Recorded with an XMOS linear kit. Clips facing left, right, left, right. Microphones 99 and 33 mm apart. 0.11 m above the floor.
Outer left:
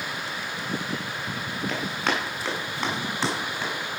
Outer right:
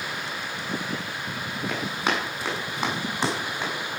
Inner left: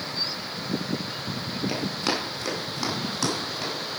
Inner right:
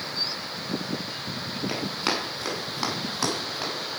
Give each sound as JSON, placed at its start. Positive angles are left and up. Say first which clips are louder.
{"t": 1.7, "sound": "running footsteps", "louder": "outer right 1 dB, even", "side_deg": -15, "distance_m": 6.5}